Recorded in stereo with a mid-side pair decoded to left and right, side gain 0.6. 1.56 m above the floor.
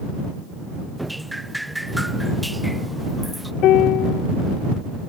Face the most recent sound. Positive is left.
turn(degrees=60)